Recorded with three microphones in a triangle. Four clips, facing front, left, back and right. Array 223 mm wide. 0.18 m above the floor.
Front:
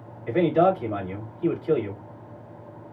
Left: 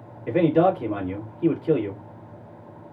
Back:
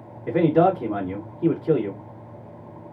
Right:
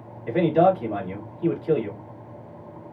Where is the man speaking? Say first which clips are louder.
Even, back 2 dB; 160° left, 1.8 m.